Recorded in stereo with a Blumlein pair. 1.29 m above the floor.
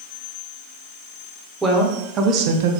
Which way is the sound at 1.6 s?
10° right.